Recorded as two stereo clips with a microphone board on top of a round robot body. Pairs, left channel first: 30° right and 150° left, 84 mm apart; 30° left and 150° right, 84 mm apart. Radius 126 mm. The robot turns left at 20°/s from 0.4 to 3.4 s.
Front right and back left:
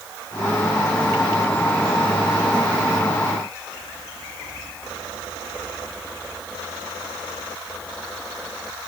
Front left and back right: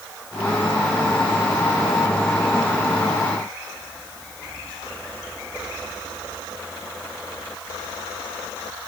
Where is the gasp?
I don't hear a gasp.